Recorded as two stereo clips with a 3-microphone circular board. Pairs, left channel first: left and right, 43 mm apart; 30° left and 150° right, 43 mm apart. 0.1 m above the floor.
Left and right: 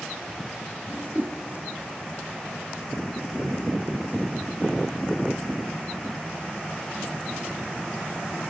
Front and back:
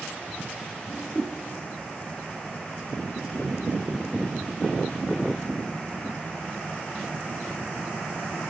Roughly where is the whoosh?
Ahead right.